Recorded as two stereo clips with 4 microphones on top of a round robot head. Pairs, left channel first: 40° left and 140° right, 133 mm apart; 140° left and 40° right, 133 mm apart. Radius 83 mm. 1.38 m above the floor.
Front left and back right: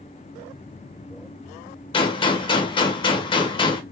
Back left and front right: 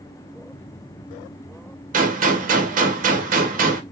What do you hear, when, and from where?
1.9 s a gunshot: 15° right, 1.0 m